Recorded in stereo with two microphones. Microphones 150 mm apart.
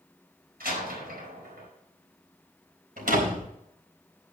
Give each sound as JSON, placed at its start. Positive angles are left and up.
{"t": 0.6, "sound": "a door slam", "side_deg": -85, "distance_m": 5.0}
{"t": 3.0, "sound": "a door slam", "side_deg": -75, "distance_m": 4.0}